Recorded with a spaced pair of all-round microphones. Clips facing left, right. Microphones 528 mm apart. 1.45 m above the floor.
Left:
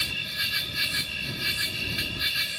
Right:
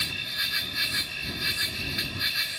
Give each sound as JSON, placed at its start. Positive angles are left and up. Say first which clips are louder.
{"t": 0.0, "sound": "an insect", "louder": "even", "side_deg": 55}